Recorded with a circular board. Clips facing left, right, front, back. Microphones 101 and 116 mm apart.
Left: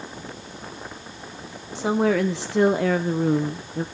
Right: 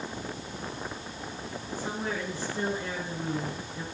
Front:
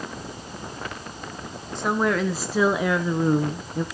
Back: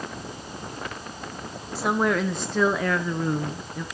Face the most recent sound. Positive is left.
turn(degrees=45)